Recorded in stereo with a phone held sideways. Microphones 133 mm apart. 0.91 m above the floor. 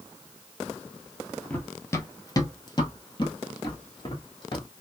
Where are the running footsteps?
15° left (ahead or behind), 1.0 m; by 4.7 s 35° left (ahead or behind), 1.8 m.